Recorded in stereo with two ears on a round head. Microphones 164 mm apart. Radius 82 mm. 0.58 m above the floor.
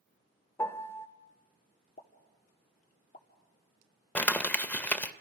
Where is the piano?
15° left (ahead or behind), 0.6 m.